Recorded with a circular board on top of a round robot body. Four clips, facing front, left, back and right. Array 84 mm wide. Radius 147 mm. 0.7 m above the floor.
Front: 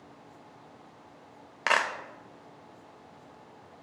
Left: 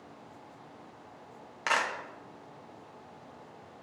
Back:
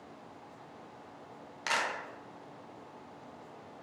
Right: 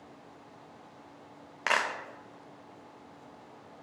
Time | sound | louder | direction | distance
1.7 | a clap | even, front 6 dB | 20° right | 1.0 m